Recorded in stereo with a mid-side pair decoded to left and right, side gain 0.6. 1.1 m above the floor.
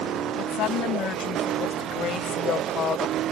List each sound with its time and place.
0.3 s a woman speaking: 60° left; by 3.2 s 45° left